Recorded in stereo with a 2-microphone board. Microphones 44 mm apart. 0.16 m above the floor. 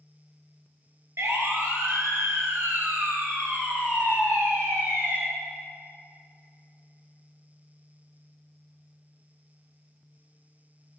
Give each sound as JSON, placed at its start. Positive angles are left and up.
{"t": 1.2, "sound": "a siren", "side_deg": -65, "distance_m": 3.0}